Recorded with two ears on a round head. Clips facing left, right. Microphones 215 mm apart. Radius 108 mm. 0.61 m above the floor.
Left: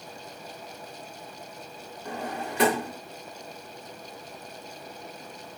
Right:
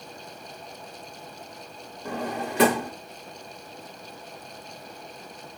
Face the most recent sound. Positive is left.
turn(degrees=-60)  # may be behind; listen again after turning